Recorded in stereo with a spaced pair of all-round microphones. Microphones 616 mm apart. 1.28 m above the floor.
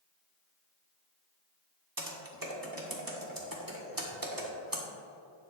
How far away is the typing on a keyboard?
About 1.6 m.